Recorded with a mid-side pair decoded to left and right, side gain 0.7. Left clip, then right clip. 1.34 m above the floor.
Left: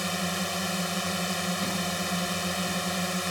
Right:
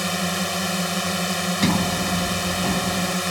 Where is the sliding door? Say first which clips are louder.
Right 7 dB; 55° right.